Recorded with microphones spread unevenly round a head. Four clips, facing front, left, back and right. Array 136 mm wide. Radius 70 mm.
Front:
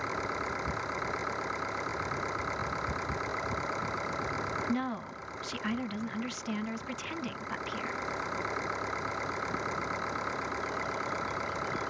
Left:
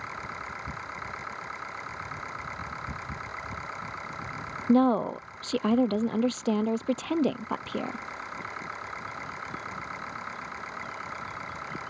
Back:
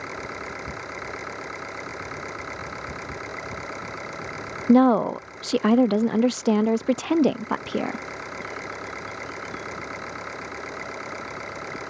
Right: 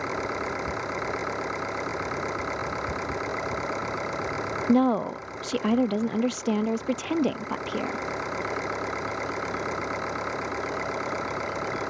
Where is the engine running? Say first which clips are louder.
Right 9 dB, even; 100° right.